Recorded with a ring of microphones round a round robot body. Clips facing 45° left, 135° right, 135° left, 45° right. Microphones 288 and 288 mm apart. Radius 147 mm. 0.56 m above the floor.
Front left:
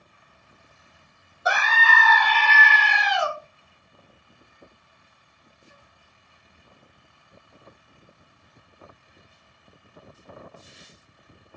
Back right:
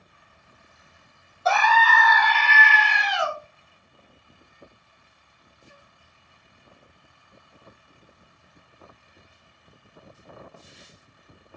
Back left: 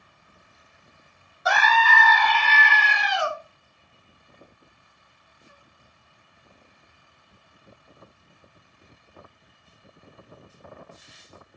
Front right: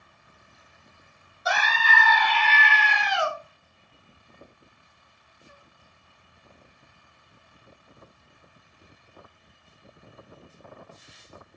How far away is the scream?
About 1.1 m.